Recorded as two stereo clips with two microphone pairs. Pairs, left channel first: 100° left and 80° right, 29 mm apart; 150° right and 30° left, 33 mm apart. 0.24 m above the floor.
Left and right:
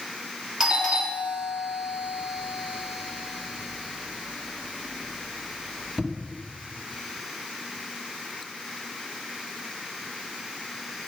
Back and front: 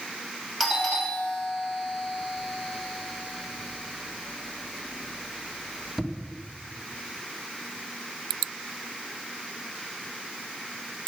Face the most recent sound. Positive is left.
turn(degrees=-40)